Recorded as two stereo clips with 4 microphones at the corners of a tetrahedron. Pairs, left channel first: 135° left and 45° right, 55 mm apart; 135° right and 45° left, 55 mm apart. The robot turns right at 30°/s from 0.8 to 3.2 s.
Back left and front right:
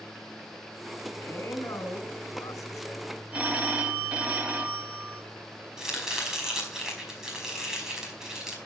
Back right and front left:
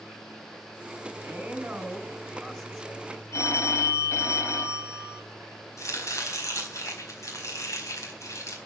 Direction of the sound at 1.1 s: 100° left.